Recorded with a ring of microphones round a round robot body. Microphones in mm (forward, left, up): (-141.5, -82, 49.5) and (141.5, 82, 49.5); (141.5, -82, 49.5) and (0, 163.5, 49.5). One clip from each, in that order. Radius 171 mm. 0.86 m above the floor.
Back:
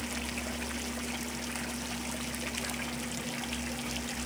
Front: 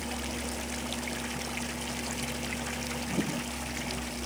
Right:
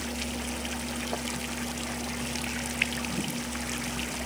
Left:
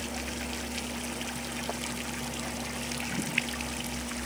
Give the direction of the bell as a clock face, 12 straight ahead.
No bell in this recording.